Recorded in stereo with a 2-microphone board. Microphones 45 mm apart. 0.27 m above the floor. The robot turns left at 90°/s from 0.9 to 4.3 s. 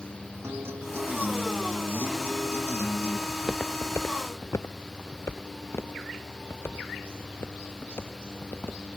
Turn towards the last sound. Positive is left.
turn(degrees=60)  # may be behind; listen again after turning